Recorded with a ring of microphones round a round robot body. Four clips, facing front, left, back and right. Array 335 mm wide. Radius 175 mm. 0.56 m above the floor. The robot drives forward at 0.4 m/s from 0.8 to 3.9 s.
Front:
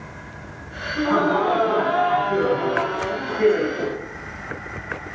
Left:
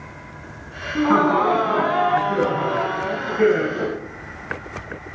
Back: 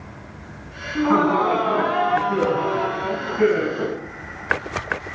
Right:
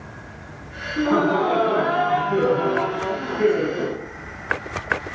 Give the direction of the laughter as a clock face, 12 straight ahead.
8 o'clock.